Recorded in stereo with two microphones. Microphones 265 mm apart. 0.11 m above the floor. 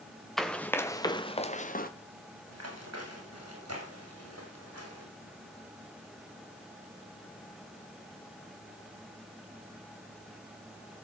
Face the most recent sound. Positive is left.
turn(degrees=-90)